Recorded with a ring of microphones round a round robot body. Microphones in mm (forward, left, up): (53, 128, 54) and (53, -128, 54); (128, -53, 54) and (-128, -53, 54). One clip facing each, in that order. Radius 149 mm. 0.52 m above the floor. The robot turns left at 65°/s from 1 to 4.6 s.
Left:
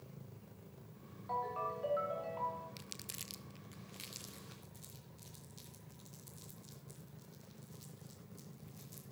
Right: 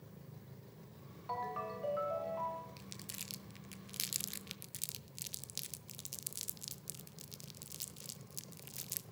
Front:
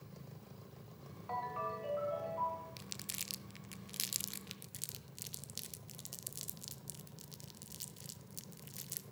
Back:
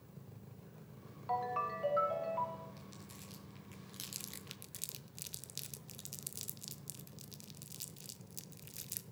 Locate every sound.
1.3 s a ringtone: 140° right, 2.5 m; by 2.7 s 130° left, 2.5 m
2.8 s crumpling: 25° left, 0.7 m; by 9.0 s 95° right, 0.7 m